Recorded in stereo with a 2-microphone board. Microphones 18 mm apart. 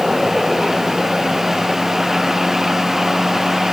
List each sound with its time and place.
Only background noise.